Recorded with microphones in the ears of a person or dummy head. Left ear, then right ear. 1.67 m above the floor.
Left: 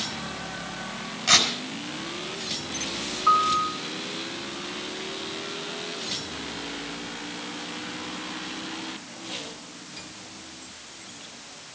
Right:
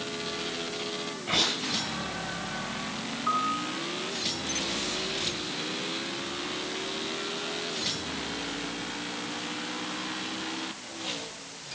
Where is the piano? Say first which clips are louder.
Left 8 dB; 40° left (ahead or behind), 4.5 m.